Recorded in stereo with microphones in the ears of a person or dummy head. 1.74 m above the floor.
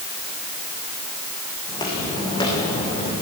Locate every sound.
1.7 s footsteps: 20° left (ahead or behind), 4.5 m; by 3.1 s 25° left (ahead or behind), 3.5 m